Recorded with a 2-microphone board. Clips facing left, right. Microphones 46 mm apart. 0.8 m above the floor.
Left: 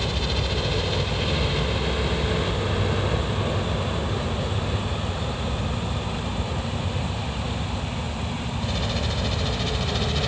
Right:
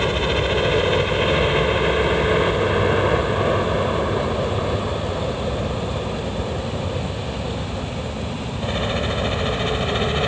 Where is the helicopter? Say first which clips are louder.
Right 7 dB; 40° right (ahead or behind); by 10.3 s 30° right (ahead or behind).